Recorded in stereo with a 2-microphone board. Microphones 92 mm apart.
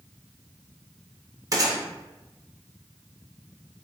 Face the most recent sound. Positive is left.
turn(degrees=-40)  # may be behind; listen again after turning